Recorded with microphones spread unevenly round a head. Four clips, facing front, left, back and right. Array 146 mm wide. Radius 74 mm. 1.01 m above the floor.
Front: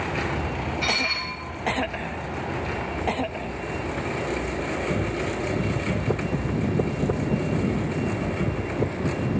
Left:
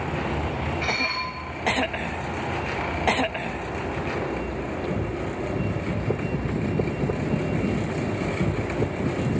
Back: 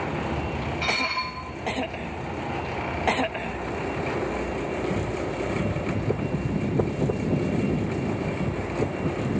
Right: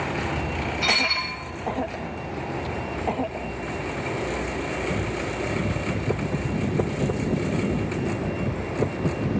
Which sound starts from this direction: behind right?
Dishes clattering, at 0.8 s.